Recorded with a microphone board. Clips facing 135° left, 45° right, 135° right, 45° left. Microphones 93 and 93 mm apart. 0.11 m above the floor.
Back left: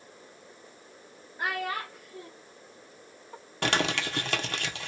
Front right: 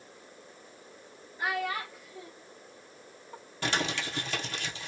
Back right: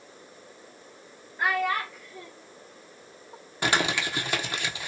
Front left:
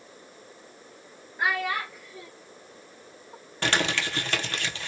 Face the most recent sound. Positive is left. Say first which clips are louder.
# back left 4 dB, back right 1 dB
turn(degrees=150)